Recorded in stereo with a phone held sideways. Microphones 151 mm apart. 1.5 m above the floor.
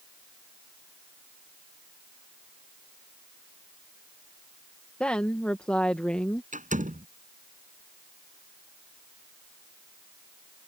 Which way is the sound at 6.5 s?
55° right (ahead or behind).